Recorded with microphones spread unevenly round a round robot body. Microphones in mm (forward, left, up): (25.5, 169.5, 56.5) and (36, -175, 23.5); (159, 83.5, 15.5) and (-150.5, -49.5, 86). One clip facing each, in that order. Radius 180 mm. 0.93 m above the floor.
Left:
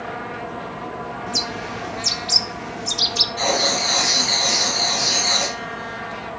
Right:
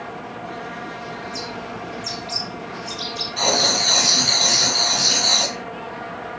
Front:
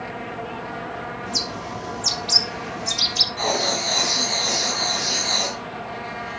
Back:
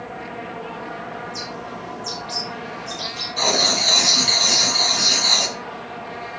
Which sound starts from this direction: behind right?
Writing, at 3.4 s.